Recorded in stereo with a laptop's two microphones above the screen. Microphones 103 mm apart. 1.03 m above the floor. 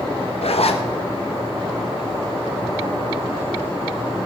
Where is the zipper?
75° left (ahead or behind), 0.9 m.